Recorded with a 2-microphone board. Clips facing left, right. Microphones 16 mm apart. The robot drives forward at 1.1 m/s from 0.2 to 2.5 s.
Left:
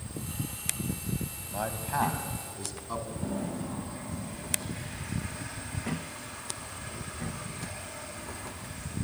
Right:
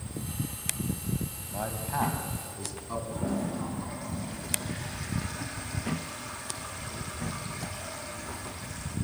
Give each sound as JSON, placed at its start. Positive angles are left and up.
{"t": 1.5, "sound": "a man speaking", "side_deg": 15, "distance_m": 1.8}
{"t": 3.1, "sound": "a toilet flushing", "side_deg": -75, "distance_m": 8.5}